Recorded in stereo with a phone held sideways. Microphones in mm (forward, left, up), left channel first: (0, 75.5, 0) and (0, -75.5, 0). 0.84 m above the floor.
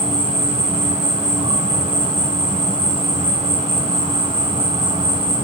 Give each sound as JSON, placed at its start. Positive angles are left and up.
{"t": 0.0, "sound": "an insect", "side_deg": -45, "distance_m": 3.5}